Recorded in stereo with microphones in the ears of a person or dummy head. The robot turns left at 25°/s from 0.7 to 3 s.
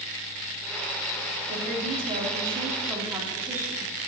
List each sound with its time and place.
1.5 s a woman speaking: 125° right, 3 m; by 3.9 s 160° right, 3 m